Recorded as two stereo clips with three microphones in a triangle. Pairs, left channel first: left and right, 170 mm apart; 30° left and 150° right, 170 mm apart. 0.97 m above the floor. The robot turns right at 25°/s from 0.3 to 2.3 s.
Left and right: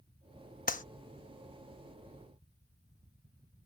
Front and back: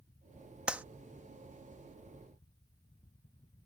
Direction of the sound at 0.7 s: 125° left.